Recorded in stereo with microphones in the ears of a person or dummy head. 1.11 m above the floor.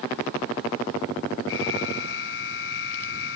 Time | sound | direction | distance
1.5 | an alarm | 80° left | ?